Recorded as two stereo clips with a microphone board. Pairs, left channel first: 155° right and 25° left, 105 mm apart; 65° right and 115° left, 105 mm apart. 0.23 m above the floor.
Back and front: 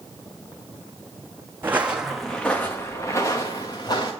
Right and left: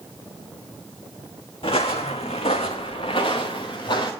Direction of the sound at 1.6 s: 45° right.